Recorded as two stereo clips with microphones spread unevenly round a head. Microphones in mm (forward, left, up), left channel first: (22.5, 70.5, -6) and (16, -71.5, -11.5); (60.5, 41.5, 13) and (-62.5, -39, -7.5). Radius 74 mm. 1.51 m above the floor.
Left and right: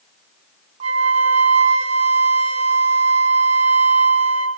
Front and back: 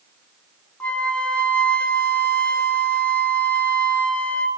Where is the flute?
45° right, 2.5 m.